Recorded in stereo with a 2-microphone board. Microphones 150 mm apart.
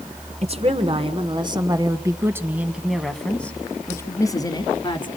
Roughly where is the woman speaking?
Right.